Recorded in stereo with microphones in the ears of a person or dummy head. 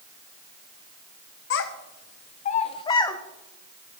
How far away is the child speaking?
About 1.1 m.